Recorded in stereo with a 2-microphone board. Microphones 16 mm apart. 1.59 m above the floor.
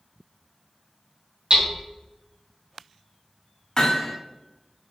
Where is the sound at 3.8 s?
40° left (ahead or behind), 2.5 m.